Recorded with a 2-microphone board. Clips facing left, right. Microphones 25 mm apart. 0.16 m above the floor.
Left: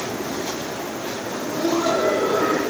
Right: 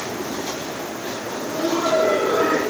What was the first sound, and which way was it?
Laughter, 10° left (ahead or behind).